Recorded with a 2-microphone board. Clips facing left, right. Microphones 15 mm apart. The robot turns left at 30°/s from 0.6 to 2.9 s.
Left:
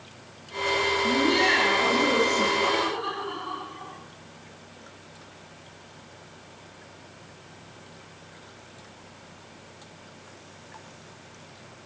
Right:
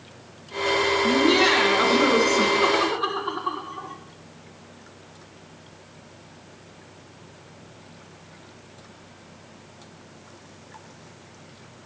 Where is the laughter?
60° right, 2 m; by 4.0 s 115° right, 2 m.